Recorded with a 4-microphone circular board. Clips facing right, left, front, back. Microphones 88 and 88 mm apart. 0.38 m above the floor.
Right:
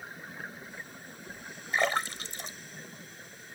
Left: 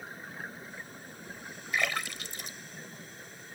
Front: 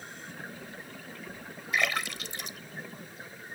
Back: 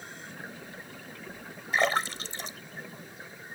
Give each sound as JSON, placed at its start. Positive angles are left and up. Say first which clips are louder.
{"t": 1.7, "sound": "a splash", "louder": "right 4 dB, back 4 dB", "azimuth_deg": -135}